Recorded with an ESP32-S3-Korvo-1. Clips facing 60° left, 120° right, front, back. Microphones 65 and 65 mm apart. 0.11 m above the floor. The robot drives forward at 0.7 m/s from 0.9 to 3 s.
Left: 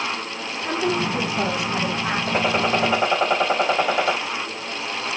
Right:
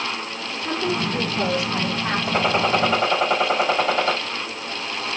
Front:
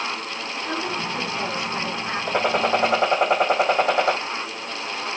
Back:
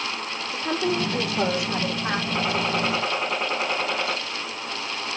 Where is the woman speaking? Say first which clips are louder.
Left 2 dB, back 3 dB; 145° left, 4.5 m; by 2.2 s 150° left, 5.5 m.